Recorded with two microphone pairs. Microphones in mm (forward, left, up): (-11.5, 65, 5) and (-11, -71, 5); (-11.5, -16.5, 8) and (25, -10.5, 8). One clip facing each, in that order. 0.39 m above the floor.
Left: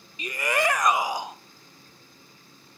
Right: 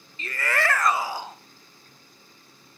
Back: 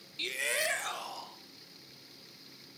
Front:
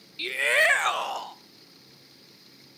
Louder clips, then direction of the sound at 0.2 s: Left 2 dB, front 11 dB; 45° left.